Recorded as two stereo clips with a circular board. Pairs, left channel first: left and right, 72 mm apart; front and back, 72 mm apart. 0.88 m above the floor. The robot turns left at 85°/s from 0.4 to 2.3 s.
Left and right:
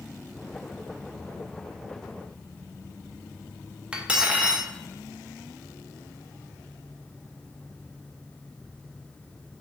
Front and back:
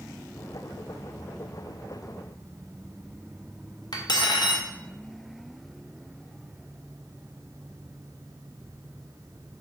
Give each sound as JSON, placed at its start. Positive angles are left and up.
{"t": 3.9, "sound": "cutlery clinking", "azimuth_deg": -15, "distance_m": 0.5}